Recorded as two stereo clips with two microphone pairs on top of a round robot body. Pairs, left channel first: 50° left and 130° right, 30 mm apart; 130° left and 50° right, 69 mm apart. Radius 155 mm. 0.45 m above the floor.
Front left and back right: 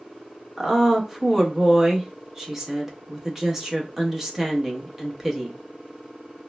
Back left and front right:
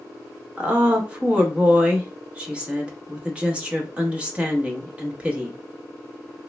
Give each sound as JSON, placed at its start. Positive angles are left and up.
{"t": 0.6, "sound": "a woman speaking", "azimuth_deg": -120, "distance_m": 1.0}